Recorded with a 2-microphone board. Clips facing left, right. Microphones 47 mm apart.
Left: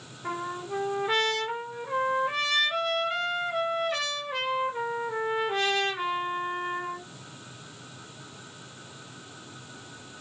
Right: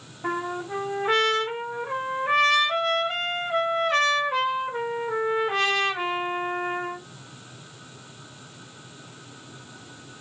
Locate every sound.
0.2 s a trumpet: 75° right (ahead or behind), 0.9 m